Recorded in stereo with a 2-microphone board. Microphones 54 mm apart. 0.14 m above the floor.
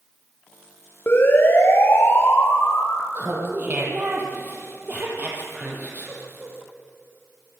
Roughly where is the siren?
Left.